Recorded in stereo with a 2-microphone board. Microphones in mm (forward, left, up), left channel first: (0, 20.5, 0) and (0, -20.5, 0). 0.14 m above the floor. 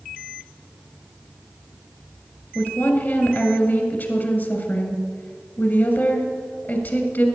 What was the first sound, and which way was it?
A woman speaking, 50° left (ahead or behind).